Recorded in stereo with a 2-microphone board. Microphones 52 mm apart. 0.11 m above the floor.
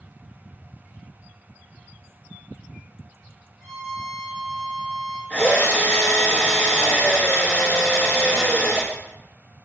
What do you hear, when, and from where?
3.6 s a violin: 10° left (ahead or behind), 0.8 m
5.3 s a drill: 20° left (ahead or behind), 0.9 m